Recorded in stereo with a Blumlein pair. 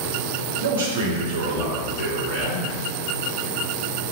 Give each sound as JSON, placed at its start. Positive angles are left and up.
{"t": 0.6, "sound": "a man speaking", "azimuth_deg": -65, "distance_m": 0.9}